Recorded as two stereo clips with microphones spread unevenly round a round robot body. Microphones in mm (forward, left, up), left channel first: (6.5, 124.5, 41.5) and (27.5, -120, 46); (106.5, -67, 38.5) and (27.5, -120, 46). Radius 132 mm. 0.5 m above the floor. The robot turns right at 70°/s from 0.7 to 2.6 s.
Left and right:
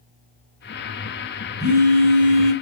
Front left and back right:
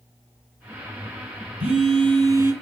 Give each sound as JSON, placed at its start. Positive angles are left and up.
{"t": 1.6, "sound": "a phone buzzing", "azimuth_deg": -150, "distance_m": 3.0}